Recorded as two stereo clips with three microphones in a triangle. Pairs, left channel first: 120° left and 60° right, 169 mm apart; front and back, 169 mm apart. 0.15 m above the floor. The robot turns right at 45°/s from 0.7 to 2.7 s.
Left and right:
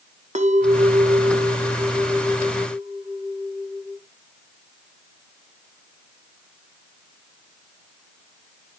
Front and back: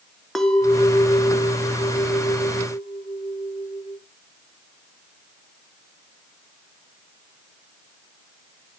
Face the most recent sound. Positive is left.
turn(degrees=0)